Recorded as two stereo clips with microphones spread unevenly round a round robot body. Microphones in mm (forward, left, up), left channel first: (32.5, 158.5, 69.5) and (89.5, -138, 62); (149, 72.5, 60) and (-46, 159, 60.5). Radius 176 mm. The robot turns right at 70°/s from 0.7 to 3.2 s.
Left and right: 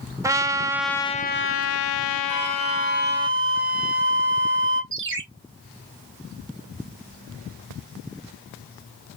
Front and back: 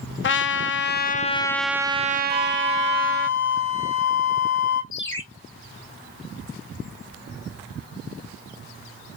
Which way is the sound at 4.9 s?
40° right.